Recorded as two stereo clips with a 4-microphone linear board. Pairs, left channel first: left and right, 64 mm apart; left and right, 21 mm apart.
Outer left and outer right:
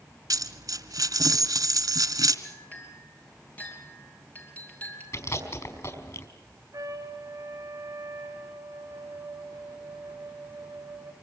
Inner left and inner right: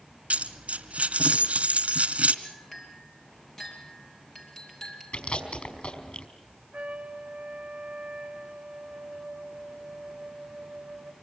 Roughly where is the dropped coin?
Right.